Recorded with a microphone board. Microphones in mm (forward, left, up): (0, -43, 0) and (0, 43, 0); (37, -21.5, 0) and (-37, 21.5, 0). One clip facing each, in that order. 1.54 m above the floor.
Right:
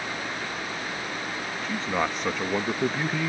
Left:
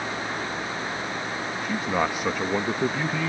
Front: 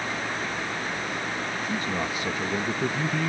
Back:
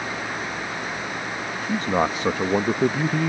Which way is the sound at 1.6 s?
170° left.